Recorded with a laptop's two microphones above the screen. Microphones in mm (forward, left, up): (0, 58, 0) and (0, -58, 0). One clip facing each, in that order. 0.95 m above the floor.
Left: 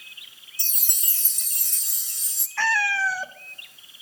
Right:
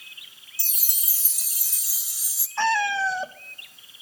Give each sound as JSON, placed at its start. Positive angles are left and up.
{"t": 0.6, "sound": "a chime", "side_deg": -5, "distance_m": 1.0}
{"t": 2.6, "sound": "a cat meowing", "side_deg": -20, "distance_m": 0.9}